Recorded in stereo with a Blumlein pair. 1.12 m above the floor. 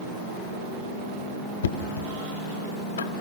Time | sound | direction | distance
1.6 | knocking | 60° left | 1.6 m